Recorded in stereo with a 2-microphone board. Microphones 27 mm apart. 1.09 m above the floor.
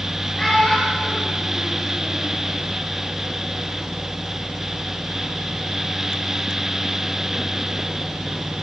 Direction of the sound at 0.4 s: 25° left (ahead or behind).